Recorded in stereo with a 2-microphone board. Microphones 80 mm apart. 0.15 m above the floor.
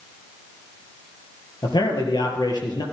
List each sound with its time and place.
1.6 s a man speaking: 65° left (ahead or behind), 3 m